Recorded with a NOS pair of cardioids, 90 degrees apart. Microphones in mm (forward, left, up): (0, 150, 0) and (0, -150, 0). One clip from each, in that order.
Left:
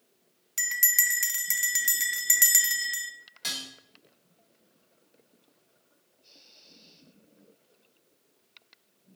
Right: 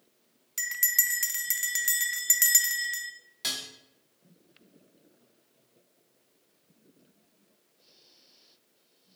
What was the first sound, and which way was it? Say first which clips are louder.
A bell: left 3 dB; 5° left.